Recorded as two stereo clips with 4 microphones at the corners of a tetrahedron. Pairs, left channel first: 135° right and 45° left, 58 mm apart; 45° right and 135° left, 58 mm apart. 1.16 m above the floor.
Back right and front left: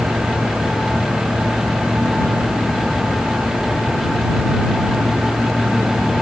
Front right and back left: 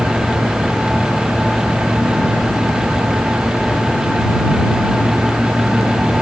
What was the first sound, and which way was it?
Only background noise.